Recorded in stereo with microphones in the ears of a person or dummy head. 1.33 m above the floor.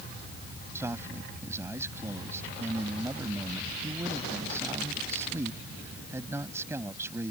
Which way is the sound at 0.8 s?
15° right (ahead or behind).